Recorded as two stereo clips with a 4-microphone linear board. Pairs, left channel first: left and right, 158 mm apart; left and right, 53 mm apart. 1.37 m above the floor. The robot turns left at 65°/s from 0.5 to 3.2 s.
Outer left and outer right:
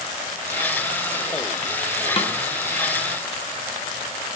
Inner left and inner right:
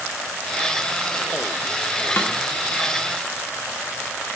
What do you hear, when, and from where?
2.2 s a snare drum: 35° left (ahead or behind), 0.7 m; by 2.3 s 45° left (ahead or behind), 0.7 m